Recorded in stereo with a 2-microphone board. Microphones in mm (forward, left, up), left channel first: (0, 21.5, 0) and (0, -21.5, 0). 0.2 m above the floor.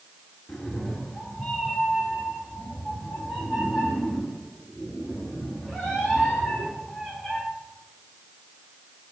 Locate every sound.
0.5 s a cat meowing: 10° left (ahead or behind), 1.5 m; by 7.4 s 5° left (ahead or behind), 9 m